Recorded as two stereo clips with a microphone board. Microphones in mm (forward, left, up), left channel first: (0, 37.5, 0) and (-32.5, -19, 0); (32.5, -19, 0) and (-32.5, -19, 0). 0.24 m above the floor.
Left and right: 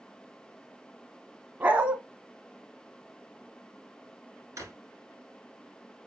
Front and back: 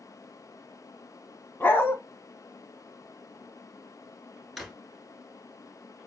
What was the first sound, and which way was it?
A dog barking, 60° right.